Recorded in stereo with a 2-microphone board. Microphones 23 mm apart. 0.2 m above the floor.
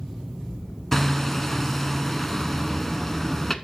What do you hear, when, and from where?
0.9 s hammering: 15° left (ahead or behind), 0.8 m